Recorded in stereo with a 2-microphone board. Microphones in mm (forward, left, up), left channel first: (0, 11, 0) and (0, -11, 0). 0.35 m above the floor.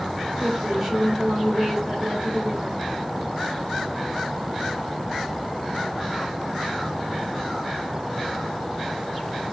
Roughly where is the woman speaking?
Right.